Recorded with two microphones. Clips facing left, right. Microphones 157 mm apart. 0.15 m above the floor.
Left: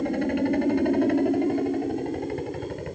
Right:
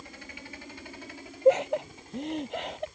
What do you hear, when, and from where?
0.0 s a helicopter: 55° left (ahead or behind); by 3.0 s 60° left (ahead or behind)
1.4 s laughter: 70° right (ahead or behind)